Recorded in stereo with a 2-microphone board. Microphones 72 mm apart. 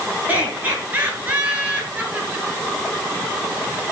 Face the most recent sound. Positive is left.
turn(degrees=-20)  # may be behind; listen again after turning